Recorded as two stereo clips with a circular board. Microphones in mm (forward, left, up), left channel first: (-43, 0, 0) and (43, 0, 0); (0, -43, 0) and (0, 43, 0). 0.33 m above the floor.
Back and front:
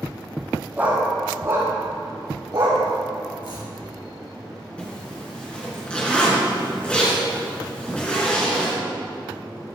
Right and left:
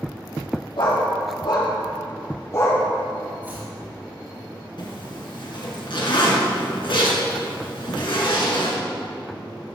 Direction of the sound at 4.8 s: 105° right.